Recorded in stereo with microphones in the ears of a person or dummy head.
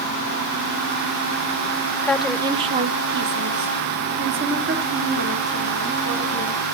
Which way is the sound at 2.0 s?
10° left (ahead or behind).